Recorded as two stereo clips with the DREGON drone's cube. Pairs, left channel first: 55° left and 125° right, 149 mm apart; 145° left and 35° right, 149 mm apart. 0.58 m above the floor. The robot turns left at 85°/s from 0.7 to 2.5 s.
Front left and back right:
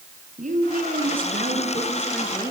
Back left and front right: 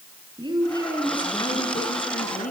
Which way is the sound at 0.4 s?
95° right.